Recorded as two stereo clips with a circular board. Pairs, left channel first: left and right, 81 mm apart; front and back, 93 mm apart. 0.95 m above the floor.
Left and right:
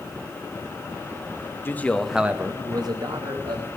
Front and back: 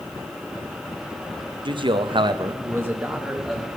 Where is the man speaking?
150° left, 1.0 m; by 3.7 s 90° right, 1.7 m.